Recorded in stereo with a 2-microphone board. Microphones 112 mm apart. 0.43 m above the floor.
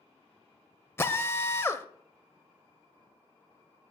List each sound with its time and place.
1.0 s a drill: 20° left (ahead or behind), 0.7 m